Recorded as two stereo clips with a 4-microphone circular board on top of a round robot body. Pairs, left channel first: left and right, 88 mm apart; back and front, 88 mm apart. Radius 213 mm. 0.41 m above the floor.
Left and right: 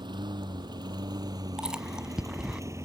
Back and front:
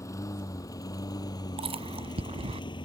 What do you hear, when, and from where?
0.0 s a lawn mower: 125° right; by 2.9 s 150° right
1.6 s chewing: 5° right